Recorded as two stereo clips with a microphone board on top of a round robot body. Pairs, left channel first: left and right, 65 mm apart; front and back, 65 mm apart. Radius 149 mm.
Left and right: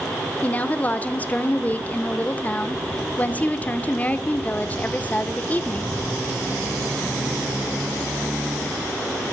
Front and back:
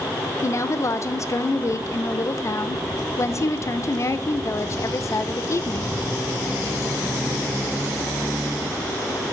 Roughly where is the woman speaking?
Ahead left.